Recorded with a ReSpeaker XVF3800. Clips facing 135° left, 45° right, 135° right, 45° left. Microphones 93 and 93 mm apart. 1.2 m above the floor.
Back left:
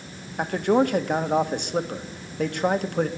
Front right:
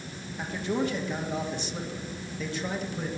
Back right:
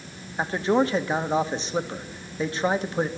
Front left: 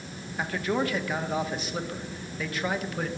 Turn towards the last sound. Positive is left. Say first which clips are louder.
# back left 9 dB, back right 6 dB
turn(degrees=165)